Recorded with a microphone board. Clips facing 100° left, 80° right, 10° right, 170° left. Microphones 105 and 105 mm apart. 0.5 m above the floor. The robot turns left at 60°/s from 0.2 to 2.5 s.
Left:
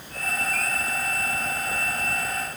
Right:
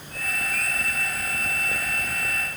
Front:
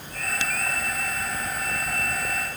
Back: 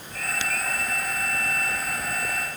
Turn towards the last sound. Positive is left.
No sound to turn to.